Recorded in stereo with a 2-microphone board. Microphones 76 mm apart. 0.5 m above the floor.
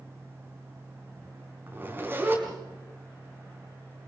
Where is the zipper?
25° right (ahead or behind), 5.5 m.